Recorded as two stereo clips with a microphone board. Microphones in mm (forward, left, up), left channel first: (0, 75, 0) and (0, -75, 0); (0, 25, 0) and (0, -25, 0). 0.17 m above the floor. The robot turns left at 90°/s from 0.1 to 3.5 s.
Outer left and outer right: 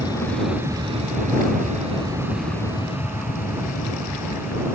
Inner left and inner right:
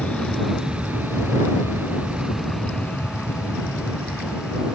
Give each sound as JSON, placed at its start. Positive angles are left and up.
{"t": 0.0, "sound": "an aircraft", "side_deg": 25}